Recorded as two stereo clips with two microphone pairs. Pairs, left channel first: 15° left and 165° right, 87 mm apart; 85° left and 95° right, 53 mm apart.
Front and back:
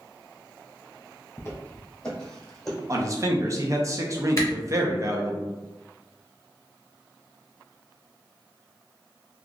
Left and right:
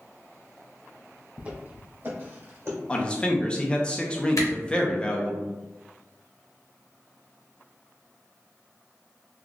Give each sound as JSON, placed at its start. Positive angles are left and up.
{"t": 1.4, "sound": "footsteps", "azimuth_deg": -40, "distance_m": 1.3}
{"t": 2.9, "sound": "a man speaking", "azimuth_deg": 150, "distance_m": 0.7}
{"t": 4.4, "sound": "a camera shutter", "azimuth_deg": 70, "distance_m": 1.0}